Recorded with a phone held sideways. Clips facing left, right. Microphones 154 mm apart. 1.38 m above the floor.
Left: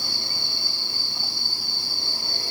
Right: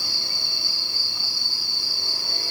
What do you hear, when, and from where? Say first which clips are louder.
0.0 s an insect: left 2 dB; 30° left (ahead or behind), 1.8 m